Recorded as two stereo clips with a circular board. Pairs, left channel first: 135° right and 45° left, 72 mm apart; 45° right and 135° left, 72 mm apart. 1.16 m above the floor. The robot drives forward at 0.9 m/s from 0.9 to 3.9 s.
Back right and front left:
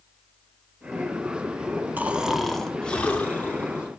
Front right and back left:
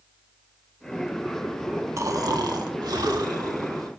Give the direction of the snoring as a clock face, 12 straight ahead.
8 o'clock.